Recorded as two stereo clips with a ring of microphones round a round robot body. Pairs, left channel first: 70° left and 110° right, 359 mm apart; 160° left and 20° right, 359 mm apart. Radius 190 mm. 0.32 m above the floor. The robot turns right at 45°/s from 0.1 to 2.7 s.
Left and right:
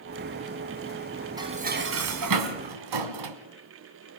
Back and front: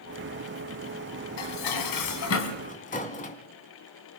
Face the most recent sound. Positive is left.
turn(degrees=-135)